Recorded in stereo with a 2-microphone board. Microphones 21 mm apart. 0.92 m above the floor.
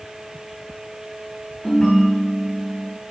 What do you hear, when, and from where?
1.6 s a ringtone: 55° left (ahead or behind), 2.5 m